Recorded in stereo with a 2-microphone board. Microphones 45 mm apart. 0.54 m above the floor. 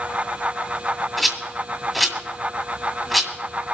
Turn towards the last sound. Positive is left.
turn(degrees=0)  # may be behind; listen again after turning